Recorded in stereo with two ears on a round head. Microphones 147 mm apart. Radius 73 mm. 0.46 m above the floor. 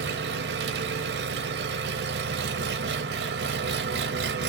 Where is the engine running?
80° right, 0.9 m.